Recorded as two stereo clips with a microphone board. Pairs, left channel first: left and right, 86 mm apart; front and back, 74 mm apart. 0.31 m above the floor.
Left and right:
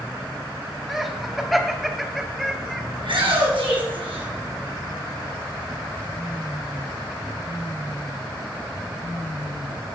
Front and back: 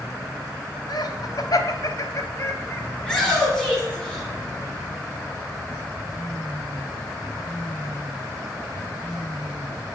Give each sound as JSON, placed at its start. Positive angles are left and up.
{"t": 0.9, "sound": "laughter", "azimuth_deg": 0, "distance_m": 1.9}
{"t": 3.0, "sound": "a shout", "azimuth_deg": -80, "distance_m": 4.0}